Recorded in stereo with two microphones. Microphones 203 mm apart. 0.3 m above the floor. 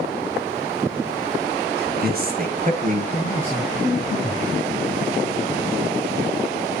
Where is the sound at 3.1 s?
30° left (ahead or behind), 3.5 m.